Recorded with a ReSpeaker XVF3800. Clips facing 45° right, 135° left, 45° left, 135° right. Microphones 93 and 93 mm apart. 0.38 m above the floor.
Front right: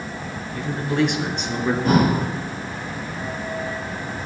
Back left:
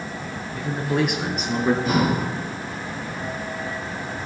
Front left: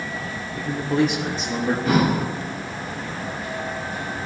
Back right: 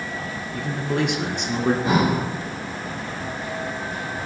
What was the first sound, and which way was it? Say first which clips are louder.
A man speaking: front right 1 dB, front left 3 dB; 145° right.